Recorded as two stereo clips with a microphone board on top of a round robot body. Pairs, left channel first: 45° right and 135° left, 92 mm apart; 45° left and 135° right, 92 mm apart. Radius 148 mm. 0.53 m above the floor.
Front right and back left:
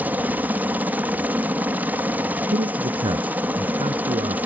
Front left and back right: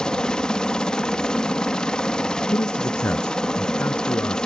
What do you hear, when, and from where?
0.0 s a helicopter: 110° left
2.5 s a man speaking: 110° left